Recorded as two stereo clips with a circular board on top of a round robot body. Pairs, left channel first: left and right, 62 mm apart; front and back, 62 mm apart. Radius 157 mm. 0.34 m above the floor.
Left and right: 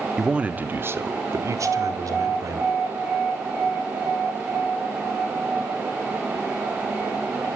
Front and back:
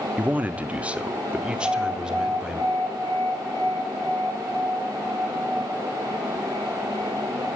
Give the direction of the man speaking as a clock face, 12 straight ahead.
5 o'clock.